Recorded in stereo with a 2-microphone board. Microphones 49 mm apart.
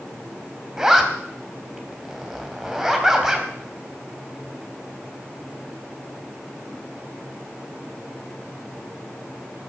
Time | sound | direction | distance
0.8 | a zipper | 10° right (ahead or behind) | 2 m